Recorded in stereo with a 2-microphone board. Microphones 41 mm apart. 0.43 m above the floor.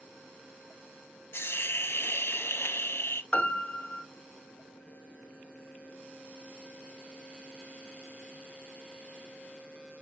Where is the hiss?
75° left (ahead or behind), 0.6 m.